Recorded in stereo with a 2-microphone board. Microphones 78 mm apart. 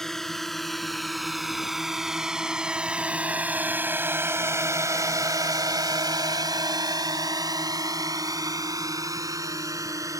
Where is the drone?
5° left (ahead or behind); by 10.2 s 40° right (ahead or behind).